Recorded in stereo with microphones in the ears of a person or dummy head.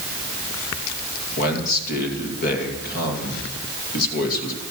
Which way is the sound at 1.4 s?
55° left (ahead or behind).